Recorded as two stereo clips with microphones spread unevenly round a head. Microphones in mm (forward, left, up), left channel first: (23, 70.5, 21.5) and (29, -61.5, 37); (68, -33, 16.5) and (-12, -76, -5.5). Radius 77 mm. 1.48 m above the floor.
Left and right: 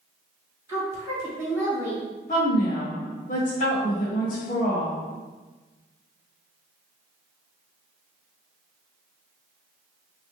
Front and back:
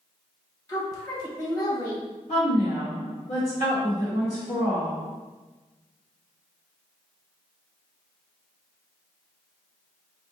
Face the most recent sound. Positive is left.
turn(degrees=65)